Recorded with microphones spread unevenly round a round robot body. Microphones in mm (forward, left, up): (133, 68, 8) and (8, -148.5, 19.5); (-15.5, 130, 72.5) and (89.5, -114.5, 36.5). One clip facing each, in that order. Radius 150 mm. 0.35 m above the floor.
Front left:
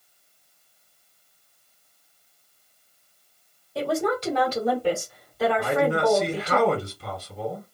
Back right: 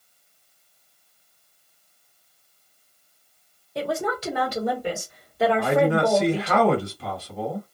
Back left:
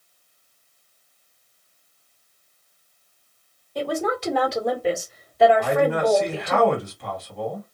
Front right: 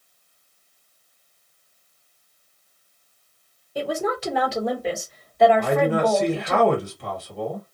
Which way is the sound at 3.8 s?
20° right.